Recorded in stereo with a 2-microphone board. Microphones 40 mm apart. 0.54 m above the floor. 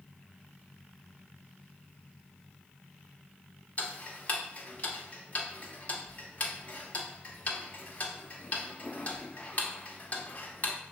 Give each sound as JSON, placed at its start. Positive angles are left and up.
{"t": 3.8, "sound": "ticking", "side_deg": 35, "distance_m": 0.8}